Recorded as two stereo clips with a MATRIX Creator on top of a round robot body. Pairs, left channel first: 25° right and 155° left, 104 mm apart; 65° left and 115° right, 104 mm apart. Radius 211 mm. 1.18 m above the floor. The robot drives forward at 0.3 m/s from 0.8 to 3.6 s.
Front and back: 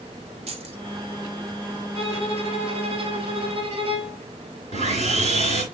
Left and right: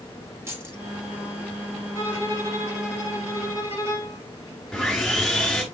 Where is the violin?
175° right, 4.5 m.